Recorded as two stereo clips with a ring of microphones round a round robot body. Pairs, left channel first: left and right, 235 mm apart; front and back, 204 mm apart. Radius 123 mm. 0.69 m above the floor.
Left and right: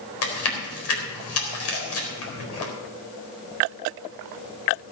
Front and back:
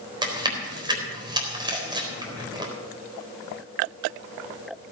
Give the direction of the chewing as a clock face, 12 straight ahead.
8 o'clock.